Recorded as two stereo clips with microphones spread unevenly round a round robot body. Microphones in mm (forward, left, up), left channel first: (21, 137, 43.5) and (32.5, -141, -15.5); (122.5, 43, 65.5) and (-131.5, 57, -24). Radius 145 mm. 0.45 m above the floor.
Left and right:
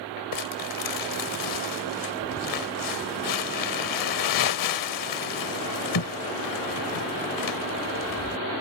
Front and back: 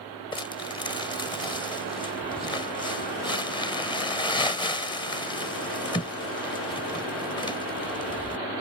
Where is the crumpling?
75° left.